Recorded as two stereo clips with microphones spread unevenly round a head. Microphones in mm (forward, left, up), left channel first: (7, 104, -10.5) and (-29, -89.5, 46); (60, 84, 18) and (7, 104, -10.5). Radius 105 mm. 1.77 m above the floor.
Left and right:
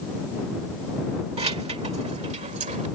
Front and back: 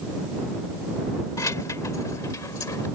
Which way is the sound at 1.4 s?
40° right.